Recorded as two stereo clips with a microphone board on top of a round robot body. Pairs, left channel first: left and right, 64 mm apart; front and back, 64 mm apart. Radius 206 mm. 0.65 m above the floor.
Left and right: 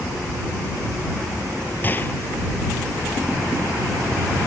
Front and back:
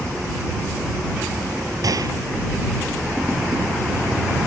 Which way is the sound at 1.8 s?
150° left.